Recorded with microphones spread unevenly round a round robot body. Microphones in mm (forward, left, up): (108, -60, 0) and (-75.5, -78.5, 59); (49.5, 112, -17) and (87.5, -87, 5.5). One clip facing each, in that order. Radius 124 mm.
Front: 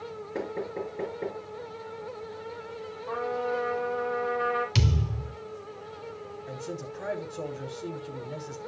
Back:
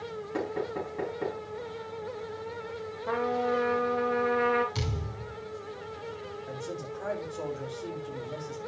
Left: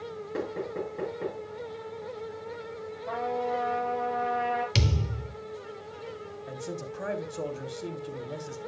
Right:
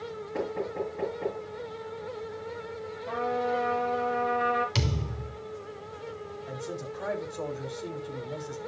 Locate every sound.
0.3 s knocking: 150° left, 5.5 m
3.1 s a trumpet: 175° right, 3.5 m
4.8 s a thud: 45° left, 1.2 m
6.5 s a man speaking: 60° left, 1.9 m